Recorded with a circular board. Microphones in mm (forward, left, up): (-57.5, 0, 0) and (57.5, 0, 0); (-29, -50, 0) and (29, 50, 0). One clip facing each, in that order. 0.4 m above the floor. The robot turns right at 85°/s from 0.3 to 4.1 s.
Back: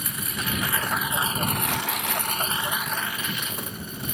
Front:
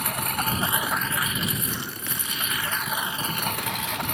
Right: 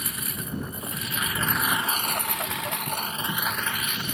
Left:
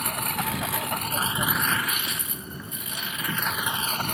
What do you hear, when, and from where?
0.0 s a lawn mower: 25° left